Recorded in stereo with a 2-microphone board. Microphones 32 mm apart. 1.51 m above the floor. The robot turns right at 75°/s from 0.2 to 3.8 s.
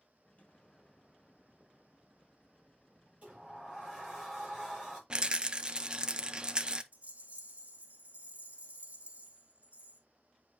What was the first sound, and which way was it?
An explosion, 125° left.